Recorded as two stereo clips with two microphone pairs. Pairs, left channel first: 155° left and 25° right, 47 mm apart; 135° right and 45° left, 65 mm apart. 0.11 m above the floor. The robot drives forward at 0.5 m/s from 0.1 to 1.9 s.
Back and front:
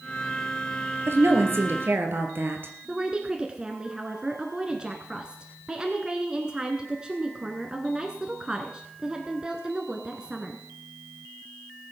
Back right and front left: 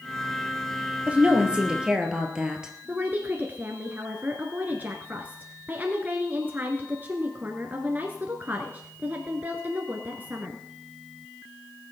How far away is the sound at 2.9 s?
About 1.3 m.